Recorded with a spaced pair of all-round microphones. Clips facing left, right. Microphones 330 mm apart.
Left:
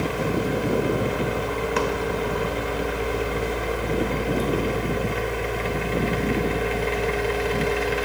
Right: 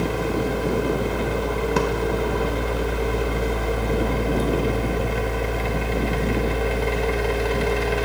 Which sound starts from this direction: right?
A machine running, at 0.0 s.